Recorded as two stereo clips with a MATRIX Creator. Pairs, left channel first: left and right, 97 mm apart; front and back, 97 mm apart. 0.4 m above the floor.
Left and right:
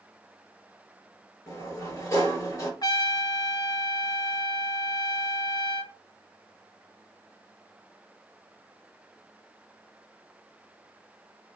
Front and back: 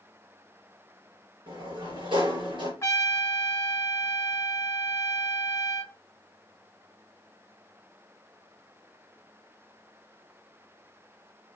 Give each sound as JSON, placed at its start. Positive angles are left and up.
{"t": 1.5, "sound": "a sliding door", "azimuth_deg": 150, "distance_m": 4.0}
{"t": 2.8, "sound": "a trumpet", "azimuth_deg": 55, "distance_m": 1.1}